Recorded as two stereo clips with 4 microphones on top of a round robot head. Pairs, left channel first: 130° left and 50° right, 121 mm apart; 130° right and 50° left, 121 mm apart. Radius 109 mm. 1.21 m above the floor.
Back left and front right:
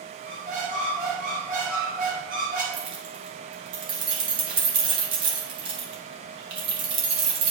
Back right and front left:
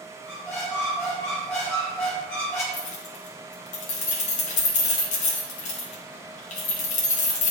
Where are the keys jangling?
100° right, 1.0 m.